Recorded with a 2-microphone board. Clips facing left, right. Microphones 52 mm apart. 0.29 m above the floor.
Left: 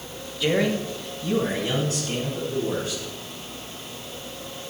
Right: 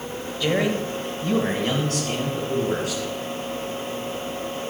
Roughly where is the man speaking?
Centre.